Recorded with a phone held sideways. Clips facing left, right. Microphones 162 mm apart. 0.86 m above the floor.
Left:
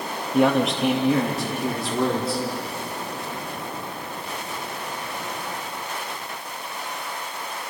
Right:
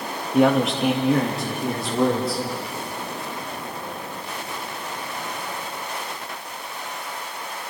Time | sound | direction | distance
0.3 | a man speaking | centre (ahead or behind) | 1.2 m